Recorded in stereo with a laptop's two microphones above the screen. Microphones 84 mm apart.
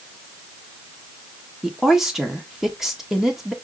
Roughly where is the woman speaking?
Centre.